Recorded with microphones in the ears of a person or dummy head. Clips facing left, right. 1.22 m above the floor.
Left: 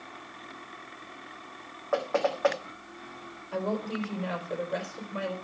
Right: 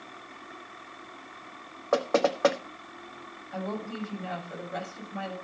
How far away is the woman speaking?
About 6 m.